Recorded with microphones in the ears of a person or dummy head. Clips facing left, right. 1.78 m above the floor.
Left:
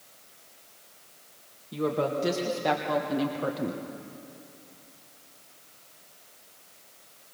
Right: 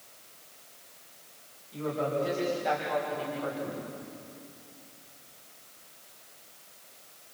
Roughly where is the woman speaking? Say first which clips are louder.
Left 3 dB; left.